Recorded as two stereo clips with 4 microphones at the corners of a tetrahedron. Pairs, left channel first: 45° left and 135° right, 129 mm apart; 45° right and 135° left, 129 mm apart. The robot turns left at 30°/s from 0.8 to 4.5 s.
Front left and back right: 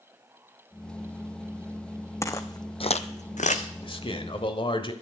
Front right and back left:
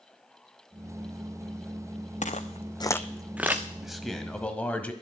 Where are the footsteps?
20° right, 1.3 m; by 3.6 s 60° left, 1.4 m.